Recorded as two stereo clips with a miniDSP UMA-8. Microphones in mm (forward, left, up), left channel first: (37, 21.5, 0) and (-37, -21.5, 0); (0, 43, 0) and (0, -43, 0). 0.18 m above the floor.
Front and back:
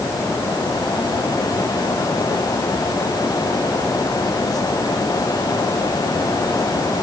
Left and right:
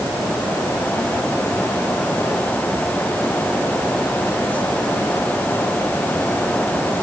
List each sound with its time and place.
Only background noise.